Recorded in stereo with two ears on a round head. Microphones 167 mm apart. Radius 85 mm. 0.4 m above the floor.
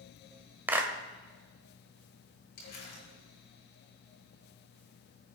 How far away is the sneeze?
I don't hear a sneeze.